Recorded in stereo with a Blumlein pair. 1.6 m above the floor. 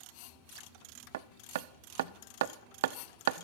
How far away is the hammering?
About 0.6 m.